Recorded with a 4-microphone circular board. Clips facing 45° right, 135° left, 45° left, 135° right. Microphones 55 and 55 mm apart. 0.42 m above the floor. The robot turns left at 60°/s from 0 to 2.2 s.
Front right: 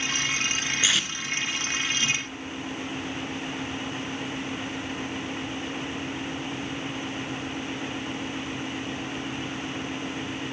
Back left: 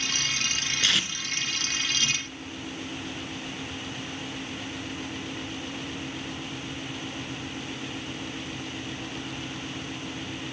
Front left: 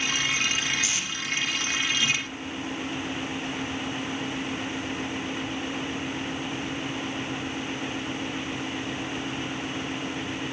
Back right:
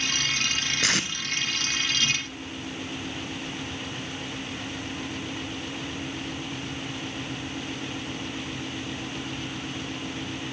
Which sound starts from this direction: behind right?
Tape being pulled, at 0.8 s.